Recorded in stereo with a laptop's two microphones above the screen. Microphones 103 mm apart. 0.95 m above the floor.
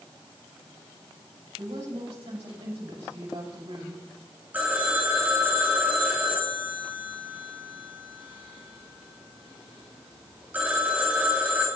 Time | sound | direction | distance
1.6 | a woman speaking | 75° right (ahead or behind) | 7 m
4.5 | a phone ringing | 15° right (ahead or behind) | 3 m